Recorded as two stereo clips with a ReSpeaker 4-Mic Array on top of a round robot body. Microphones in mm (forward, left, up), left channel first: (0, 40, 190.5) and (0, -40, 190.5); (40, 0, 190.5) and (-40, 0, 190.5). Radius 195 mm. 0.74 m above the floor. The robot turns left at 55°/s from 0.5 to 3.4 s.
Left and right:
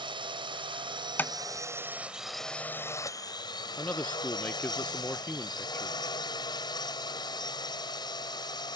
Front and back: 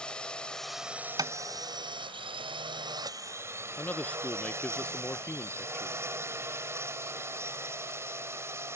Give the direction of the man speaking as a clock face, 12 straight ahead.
10 o'clock.